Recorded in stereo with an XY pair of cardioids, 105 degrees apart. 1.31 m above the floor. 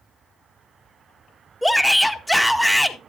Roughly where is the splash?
No splash in this recording.